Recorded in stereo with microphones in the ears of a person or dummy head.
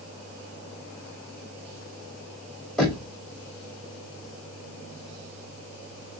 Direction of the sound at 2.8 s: Centre (ahead or behind).